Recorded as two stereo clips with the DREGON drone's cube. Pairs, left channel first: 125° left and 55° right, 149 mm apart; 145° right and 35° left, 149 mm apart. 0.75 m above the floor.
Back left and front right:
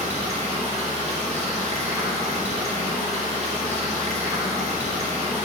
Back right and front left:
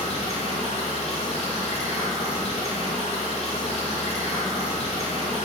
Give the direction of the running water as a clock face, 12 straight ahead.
3 o'clock.